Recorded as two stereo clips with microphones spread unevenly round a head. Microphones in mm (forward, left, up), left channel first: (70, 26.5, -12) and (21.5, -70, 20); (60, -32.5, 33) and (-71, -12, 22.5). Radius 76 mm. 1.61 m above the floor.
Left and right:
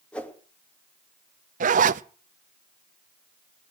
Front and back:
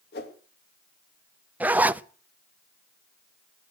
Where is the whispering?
No whispering in this recording.